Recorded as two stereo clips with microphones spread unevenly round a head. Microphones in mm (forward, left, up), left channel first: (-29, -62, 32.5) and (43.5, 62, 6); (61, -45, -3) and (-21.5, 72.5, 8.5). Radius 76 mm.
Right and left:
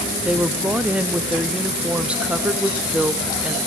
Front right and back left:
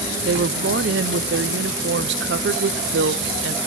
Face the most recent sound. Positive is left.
turn(degrees=140)